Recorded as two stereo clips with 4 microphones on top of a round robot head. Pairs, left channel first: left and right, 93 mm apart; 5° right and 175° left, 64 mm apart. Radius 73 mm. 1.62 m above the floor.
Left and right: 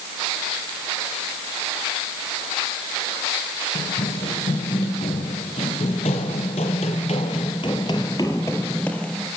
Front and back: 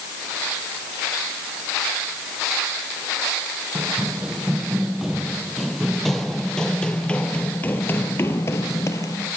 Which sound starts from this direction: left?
Running footsteps, at 3.8 s.